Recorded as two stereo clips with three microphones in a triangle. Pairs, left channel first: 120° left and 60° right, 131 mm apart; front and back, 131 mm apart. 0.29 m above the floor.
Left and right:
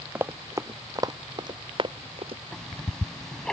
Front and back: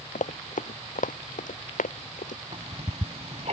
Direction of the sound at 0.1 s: 15° left.